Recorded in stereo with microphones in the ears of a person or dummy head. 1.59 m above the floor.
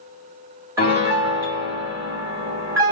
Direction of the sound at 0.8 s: 5° right (ahead or behind).